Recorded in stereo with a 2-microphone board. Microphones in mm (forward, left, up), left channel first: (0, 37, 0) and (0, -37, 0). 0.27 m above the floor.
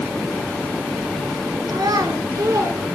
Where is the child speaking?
70° right (ahead or behind), 3.5 m; by 3.0 s 35° right (ahead or behind), 3 m.